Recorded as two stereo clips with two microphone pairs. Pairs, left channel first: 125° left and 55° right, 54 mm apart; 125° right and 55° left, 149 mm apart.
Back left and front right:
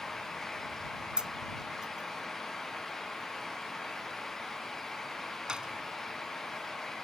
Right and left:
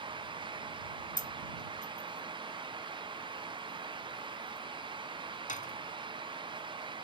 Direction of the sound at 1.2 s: 130° right.